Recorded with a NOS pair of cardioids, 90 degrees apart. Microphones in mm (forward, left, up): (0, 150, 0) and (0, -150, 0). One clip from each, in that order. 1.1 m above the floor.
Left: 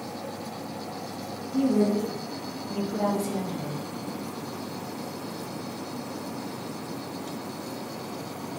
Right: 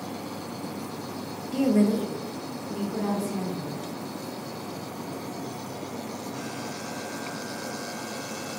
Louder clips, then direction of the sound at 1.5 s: Even; 70° right.